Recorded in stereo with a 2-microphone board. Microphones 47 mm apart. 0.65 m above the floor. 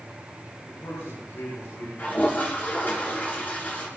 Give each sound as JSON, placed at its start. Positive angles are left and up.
{"t": 0.7, "sound": "a man speaking", "side_deg": 65, "distance_m": 10.0}
{"t": 2.0, "sound": "a toilet flushing", "side_deg": 35, "distance_m": 7.0}